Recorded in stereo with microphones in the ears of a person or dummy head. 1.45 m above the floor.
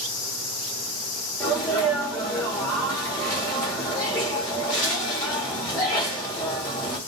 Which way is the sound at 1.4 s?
10° left (ahead or behind).